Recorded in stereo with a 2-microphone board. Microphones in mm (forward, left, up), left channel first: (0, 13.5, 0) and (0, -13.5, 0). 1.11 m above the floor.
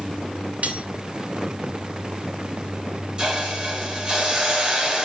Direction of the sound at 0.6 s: 60° right (ahead or behind).